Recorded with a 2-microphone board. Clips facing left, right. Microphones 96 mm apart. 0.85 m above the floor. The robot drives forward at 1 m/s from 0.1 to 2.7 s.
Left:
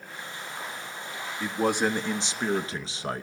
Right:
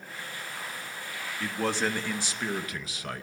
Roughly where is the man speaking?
Centre.